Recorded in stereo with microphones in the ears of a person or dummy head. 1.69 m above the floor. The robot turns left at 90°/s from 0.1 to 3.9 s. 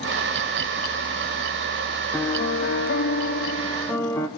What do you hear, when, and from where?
2.1 s a piano: 175° left, 0.9 m; by 4.3 s 15° left, 0.9 m